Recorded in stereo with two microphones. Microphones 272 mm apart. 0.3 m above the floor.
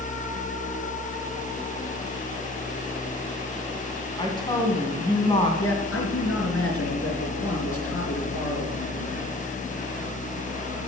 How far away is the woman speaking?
About 2.5 m.